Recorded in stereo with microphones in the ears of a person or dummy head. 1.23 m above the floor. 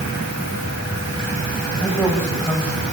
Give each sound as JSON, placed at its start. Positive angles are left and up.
{"t": 1.7, "sound": "a man speaking", "side_deg": 10, "distance_m": 9.0}